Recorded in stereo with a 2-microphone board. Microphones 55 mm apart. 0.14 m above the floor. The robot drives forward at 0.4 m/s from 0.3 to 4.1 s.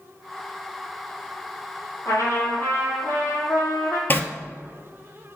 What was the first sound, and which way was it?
A trumpet, 55° left (ahead or behind).